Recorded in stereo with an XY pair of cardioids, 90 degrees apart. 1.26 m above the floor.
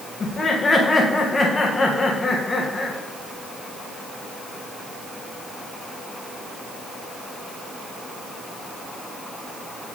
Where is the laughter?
35° left, 1.3 m.